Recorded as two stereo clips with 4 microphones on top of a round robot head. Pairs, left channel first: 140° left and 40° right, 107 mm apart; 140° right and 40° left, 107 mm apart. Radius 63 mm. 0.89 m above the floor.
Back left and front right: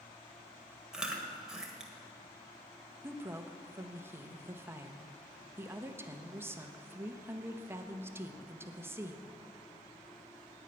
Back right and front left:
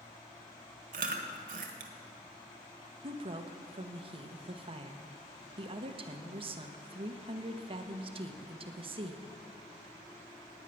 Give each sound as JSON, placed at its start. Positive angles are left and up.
{"t": 0.9, "sound": "chewing", "azimuth_deg": 45, "distance_m": 1.4}
{"t": 3.0, "sound": "a woman speaking", "azimuth_deg": 25, "distance_m": 1.0}